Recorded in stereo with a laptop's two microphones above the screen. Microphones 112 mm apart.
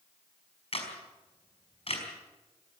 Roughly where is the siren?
I don't hear a siren.